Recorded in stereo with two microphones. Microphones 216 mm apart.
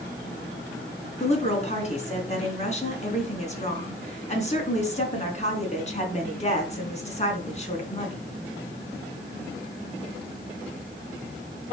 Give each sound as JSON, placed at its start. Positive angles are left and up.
{"t": 1.2, "sound": "a woman speaking", "side_deg": 35, "distance_m": 3.5}